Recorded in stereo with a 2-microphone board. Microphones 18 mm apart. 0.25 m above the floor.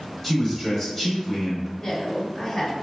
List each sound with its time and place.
0.2 s a man speaking: 20° left (ahead or behind), 1.3 m
1.8 s a woman speaking: 30° left (ahead or behind), 1.9 m